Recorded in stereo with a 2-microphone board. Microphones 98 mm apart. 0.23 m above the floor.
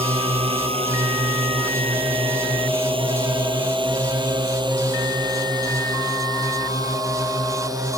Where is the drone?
75° right (ahead or behind); by 8.0 s 35° right (ahead or behind).